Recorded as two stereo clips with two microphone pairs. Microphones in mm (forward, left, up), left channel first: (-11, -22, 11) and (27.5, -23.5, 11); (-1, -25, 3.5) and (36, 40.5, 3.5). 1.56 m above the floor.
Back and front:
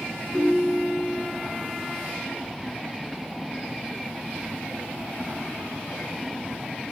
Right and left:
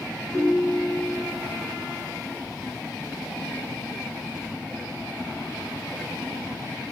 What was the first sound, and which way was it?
A ringtone, 175° right.